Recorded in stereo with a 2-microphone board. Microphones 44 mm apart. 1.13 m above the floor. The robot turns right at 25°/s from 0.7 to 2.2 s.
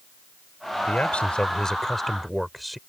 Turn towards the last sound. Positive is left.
turn(degrees=180)